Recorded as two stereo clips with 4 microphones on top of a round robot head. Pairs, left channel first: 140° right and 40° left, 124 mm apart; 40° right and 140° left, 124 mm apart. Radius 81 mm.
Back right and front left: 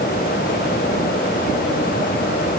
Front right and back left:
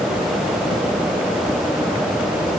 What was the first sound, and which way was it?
Only background noise.